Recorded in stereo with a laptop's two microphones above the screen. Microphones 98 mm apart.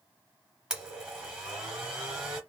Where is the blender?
10° right (ahead or behind), 1.5 m.